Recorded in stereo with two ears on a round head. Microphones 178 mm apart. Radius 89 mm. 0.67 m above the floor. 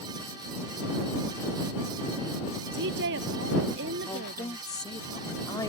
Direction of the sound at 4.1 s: 20° left (ahead or behind).